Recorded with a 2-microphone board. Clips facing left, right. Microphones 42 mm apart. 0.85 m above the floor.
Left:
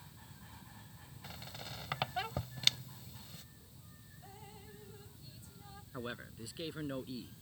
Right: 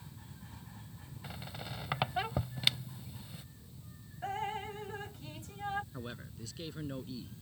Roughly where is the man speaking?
Centre.